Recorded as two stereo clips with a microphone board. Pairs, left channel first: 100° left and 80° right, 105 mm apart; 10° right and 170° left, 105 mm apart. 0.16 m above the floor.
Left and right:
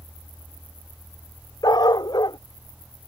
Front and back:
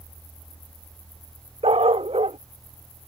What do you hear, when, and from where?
1.6 s a dog barking: 150° left